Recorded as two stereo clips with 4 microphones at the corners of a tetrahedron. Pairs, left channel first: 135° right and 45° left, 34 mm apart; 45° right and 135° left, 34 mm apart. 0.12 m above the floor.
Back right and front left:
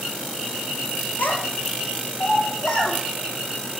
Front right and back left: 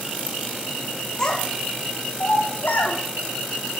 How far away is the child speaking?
About 1.6 m.